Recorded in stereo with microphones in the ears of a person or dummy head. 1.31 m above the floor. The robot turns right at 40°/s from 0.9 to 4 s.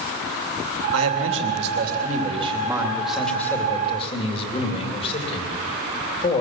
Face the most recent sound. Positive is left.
turn(degrees=35)